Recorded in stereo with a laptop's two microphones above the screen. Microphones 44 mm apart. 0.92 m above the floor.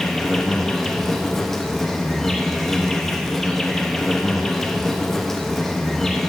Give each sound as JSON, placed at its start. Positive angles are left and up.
{"t": 0.0, "sound": "an insect", "side_deg": 5, "distance_m": 0.8}